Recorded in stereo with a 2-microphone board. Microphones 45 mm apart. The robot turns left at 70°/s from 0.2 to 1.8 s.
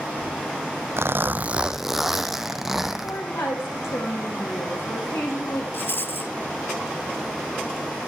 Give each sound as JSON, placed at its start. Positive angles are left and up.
{"t": 1.0, "sound": "a zipper", "azimuth_deg": -115, "distance_m": 1.0}
{"t": 3.0, "sound": "a woman speaking", "side_deg": 70, "distance_m": 6.5}
{"t": 5.7, "sound": "a rattle", "side_deg": 50, "distance_m": 0.9}